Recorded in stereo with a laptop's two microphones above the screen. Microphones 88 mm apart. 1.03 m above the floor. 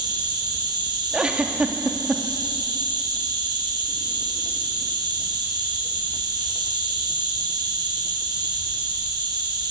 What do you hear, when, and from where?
0.0 s an insect: 50° right (ahead or behind), 7 m
1.1 s a giggle: 10° right (ahead or behind), 2 m